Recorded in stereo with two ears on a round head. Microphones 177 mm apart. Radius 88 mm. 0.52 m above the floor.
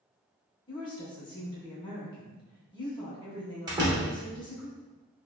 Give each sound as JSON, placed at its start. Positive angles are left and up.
{"t": 0.7, "sound": "a woman speaking", "side_deg": 25, "distance_m": 0.9}
{"t": 3.7, "sound": "a door slam", "side_deg": -20, "distance_m": 0.9}